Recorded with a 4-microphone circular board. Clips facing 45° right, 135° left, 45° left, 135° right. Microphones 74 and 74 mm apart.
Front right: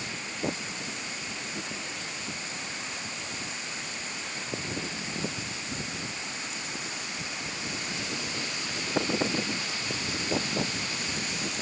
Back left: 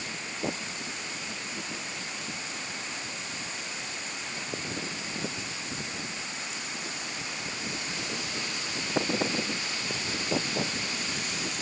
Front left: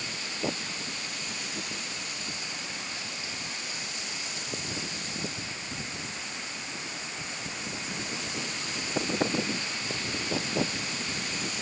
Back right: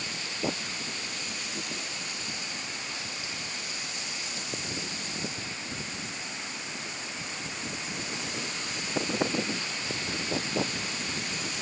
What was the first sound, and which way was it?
Only background noise.